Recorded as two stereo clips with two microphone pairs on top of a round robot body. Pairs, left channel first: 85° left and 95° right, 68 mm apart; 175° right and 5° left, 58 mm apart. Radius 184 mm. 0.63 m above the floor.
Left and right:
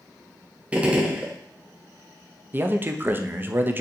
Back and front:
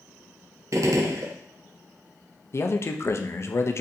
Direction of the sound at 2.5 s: 155° right.